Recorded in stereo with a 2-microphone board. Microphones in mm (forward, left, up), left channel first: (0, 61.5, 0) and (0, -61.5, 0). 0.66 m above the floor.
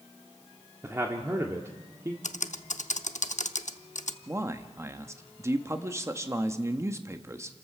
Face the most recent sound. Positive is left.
turn(degrees=-20)  # may be behind; listen again after turning